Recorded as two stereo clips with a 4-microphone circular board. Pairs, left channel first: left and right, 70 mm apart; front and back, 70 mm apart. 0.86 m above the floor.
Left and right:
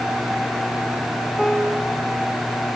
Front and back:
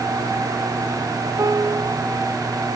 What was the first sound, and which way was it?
A piano, straight behind.